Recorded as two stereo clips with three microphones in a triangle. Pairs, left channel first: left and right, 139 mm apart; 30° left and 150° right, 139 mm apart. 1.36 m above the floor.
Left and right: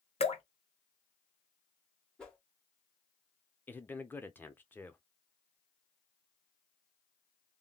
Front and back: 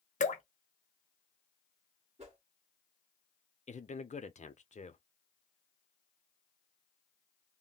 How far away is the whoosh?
About 0.9 m.